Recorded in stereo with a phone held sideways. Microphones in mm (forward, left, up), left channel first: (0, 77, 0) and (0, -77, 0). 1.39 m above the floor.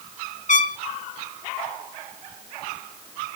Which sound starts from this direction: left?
A trumpet, at 0.5 s.